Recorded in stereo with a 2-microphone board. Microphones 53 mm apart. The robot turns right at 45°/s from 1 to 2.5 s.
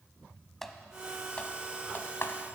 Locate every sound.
0.6 s typing on a keyboard: 5° left (ahead or behind), 0.7 m; by 2.5 s 60° left (ahead or behind), 0.7 m